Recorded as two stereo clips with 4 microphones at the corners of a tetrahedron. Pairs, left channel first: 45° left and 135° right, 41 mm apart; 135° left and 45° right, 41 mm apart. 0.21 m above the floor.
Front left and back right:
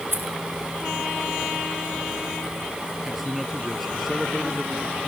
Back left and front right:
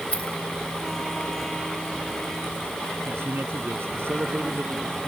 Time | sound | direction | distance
0.1 | keys jangling | 165° right | ?
3.0 | a man speaking | 45° right | ?